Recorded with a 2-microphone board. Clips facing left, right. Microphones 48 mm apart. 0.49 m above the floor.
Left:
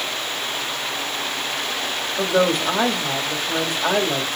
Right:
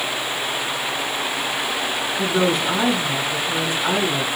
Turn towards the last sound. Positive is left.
turn(degrees=55)  # may be behind; listen again after turning